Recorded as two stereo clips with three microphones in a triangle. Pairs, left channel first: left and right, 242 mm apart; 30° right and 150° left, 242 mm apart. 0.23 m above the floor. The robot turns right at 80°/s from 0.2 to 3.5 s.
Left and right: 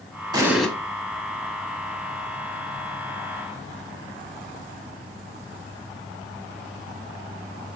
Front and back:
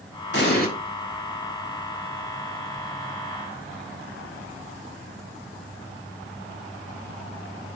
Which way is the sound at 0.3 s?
25° right.